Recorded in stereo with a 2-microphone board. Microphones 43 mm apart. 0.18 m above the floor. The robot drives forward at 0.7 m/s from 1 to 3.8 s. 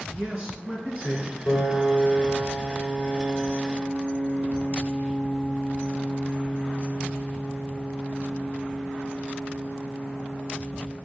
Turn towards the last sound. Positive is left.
turn(degrees=15)  # may be behind; listen again after turning